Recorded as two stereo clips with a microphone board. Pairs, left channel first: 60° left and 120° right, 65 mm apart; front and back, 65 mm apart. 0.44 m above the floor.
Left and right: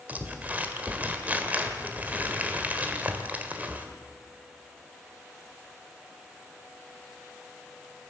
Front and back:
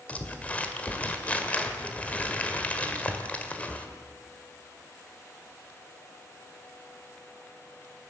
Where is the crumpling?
65° right, 2.0 m.